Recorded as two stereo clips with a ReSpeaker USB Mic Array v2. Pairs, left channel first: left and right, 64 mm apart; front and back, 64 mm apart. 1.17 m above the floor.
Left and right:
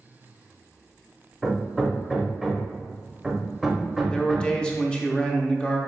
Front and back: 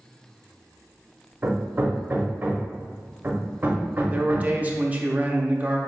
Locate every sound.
1.4 s hammering: 175° left, 0.8 m
4.1 s a man speaking: 150° left, 0.6 m